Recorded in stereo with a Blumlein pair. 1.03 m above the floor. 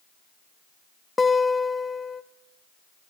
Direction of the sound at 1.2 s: 15° left.